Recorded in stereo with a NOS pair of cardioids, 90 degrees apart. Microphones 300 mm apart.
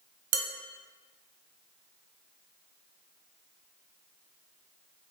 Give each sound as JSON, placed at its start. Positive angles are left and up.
{"t": 0.3, "sound": "dishes clattering", "azimuth_deg": -55, "distance_m": 0.7}